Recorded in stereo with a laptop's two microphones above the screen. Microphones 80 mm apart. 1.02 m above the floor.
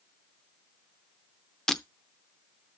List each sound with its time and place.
1.7 s breaking glass: 10° left (ahead or behind), 0.7 m